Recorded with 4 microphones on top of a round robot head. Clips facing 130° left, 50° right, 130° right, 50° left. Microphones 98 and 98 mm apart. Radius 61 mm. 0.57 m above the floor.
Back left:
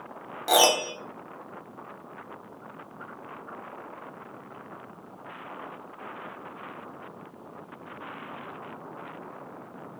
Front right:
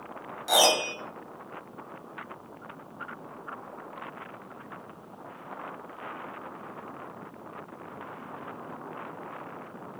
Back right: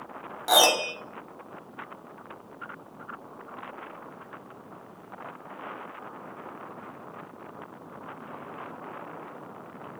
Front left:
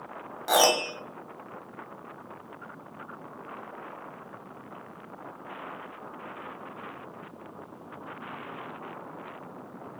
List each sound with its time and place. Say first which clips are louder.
0.5 s a piano: back left 2 dB, back right 1 dB; 145° left, 1.1 m